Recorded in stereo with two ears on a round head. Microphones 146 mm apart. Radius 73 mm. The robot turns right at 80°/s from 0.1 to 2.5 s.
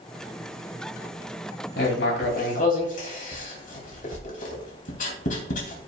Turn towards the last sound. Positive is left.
turn(degrees=55)  # may be behind; listen again after turning